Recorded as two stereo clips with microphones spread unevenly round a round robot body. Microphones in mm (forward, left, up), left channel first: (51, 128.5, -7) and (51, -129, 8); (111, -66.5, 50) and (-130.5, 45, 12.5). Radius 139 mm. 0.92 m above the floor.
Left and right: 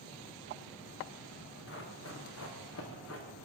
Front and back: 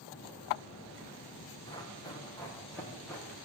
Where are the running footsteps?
50° left, 6 m; by 3.3 s 60° left, 6 m.